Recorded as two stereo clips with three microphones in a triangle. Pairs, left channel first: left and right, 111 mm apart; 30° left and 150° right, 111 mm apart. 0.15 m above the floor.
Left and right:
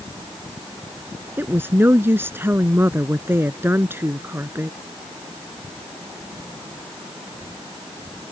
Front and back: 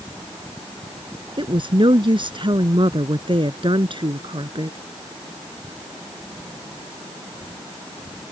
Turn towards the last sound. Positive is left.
turn(degrees=-155)